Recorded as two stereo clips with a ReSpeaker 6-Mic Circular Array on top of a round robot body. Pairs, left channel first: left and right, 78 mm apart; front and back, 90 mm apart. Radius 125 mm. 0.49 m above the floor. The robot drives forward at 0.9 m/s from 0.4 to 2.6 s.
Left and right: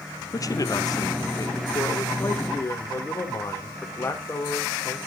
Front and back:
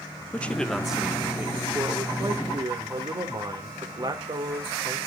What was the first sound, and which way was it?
A man speaking, 70° left.